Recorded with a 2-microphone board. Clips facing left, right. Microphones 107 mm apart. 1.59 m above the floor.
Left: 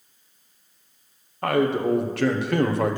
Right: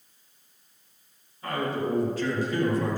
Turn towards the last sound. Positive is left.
turn(degrees=70)  # may be behind; listen again after turning